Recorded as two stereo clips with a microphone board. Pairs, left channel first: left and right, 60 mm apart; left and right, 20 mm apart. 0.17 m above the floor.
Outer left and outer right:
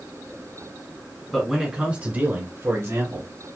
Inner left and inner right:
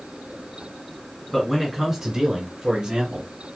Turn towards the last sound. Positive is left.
turn(degrees=-60)  # may be behind; listen again after turning